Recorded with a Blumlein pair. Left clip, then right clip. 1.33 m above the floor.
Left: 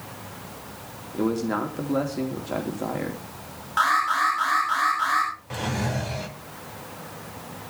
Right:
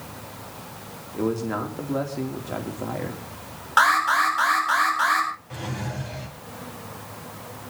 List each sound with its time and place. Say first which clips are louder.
1.1 s a man speaking: left 1 dB; 10° left, 4 m
3.8 s an alarm: right 3 dB; 65° right, 9 m
5.5 s a drawer: left 5 dB; 70° left, 3 m